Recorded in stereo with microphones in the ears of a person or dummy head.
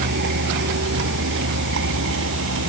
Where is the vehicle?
60° right (ahead or behind); by 2.7 s 75° right (ahead or behind).